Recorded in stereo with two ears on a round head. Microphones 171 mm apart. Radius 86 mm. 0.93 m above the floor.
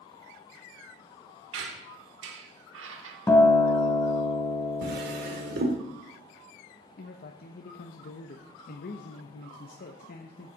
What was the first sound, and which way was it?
A squeak, 65° right (ahead or behind).